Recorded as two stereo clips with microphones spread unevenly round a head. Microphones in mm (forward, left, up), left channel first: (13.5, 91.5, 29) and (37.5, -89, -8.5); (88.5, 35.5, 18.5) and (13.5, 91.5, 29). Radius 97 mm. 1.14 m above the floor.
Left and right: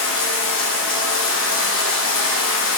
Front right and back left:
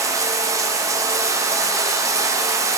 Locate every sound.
0.0 s running water: 85° left, 0.7 m